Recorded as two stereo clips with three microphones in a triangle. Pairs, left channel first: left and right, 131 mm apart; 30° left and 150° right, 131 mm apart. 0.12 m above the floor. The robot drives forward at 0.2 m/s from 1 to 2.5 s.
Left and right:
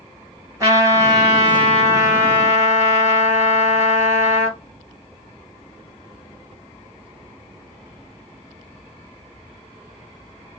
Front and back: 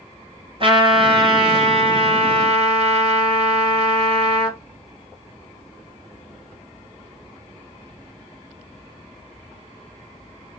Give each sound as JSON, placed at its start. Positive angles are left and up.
{"t": 0.6, "sound": "a trumpet", "azimuth_deg": -145, "distance_m": 1.4}